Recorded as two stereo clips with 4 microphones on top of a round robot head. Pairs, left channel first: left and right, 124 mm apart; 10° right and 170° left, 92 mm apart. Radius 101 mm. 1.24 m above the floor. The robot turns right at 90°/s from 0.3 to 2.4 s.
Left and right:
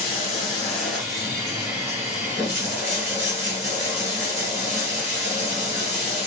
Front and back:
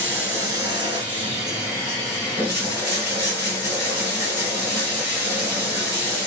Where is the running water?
110° left, 1.5 m; by 6.3 s 60° right, 1.5 m.